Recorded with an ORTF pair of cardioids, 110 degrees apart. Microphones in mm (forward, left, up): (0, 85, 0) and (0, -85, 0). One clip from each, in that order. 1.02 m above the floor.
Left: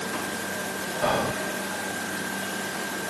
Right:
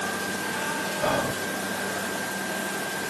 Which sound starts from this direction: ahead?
Whispering, at 1.0 s.